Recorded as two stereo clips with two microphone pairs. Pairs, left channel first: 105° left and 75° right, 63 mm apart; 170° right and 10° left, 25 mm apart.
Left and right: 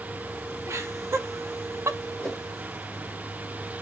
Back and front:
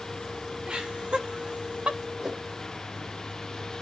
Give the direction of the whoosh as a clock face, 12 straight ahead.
10 o'clock.